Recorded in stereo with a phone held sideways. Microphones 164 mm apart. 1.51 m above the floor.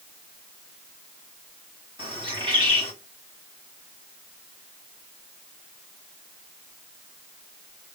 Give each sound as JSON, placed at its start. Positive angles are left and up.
{"t": 2.0, "sound": "a bird", "side_deg": -30, "distance_m": 2.5}